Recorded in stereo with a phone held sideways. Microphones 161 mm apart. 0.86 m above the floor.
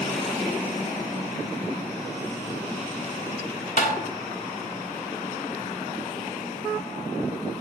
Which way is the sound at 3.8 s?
65° left (ahead or behind).